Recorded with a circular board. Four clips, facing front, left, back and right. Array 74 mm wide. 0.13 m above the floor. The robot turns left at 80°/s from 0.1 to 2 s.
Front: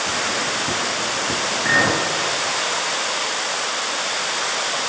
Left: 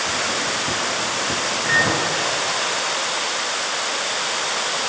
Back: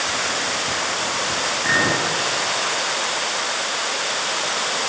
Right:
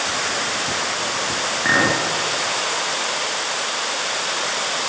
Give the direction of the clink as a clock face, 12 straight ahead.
3 o'clock.